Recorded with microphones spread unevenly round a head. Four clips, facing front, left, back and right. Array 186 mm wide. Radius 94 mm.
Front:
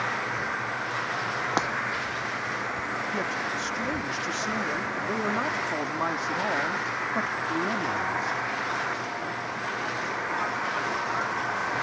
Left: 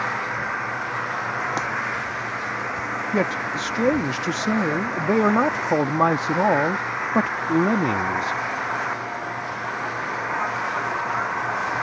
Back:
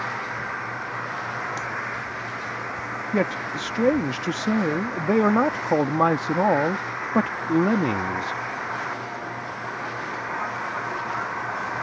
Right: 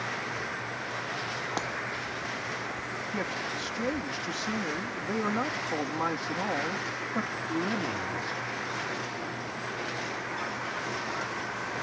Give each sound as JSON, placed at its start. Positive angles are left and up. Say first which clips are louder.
{"t": 0.0, "sound": "an engine running", "louder": "left 8 dB, even", "azimuth_deg": 70}
{"t": 1.6, "sound": "breaking glass", "louder": "left 3 dB, front 5 dB", "azimuth_deg": 25}
{"t": 3.1, "sound": "a man speaking", "louder": "left 11 dB, back 5 dB", "azimuth_deg": 125}